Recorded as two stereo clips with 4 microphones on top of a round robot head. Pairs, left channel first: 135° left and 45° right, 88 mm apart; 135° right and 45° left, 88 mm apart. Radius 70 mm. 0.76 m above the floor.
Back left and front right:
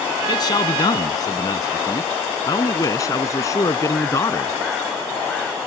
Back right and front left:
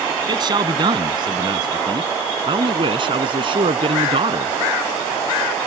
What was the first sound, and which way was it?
A man speaking, 85° left.